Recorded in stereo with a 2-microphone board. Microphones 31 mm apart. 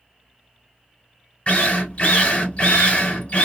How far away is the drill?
About 1.9 m.